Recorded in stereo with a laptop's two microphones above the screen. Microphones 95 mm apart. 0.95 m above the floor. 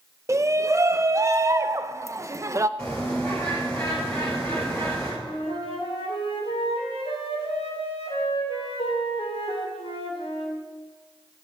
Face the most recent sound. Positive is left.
turn(degrees=80)